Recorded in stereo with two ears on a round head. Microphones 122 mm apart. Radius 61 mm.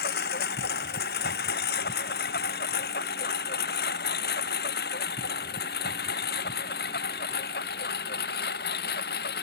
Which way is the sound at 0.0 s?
85° left.